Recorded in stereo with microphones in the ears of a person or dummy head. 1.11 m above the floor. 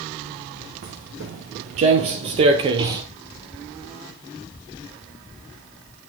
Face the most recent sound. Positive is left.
turn(degrees=-25)  # may be behind; listen again after turning